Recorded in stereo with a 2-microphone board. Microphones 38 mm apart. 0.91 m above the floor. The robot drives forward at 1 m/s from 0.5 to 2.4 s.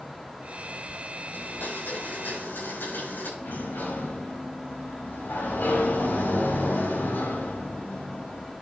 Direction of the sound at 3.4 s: 70° left (ahead or behind).